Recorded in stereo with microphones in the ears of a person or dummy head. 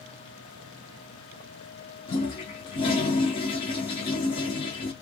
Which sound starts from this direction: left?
A toilet flushing, at 2.1 s.